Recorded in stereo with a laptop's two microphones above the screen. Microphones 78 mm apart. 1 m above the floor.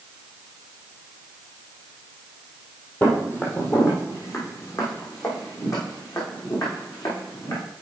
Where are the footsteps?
25° left (ahead or behind), 1.6 m; by 7.6 s 55° left (ahead or behind), 4 m.